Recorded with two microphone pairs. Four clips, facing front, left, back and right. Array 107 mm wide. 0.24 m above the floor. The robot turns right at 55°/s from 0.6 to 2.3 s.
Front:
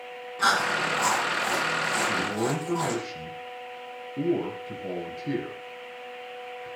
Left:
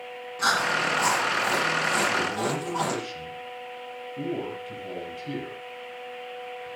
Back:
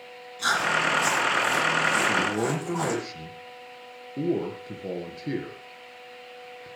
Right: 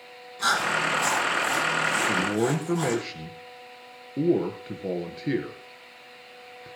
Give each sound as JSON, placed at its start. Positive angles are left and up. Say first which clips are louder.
{"t": 0.4, "sound": "chewing", "louder": "even, even", "azimuth_deg": 30, "distance_m": 9.5}
{"t": 2.1, "sound": "a man speaking", "louder": "right 2 dB, back 2 dB", "azimuth_deg": -115, "distance_m": 4.0}